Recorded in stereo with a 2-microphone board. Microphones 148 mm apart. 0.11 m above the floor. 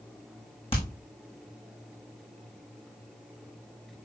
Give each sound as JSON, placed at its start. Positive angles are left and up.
{"t": 0.7, "sound": "hammering", "side_deg": 40, "distance_m": 4.0}